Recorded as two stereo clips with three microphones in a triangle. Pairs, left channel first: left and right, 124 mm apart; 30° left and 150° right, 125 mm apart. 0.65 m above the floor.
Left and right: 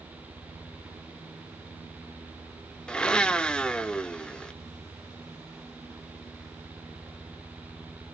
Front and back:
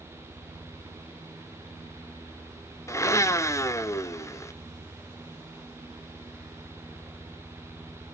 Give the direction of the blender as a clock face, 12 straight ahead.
11 o'clock.